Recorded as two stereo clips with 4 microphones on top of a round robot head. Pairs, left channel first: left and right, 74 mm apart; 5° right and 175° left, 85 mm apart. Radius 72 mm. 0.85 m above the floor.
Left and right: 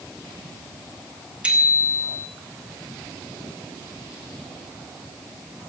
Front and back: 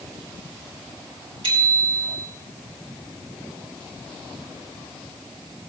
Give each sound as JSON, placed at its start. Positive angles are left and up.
{"t": 1.4, "sound": "a bicycle bell", "azimuth_deg": -165, "distance_m": 4.0}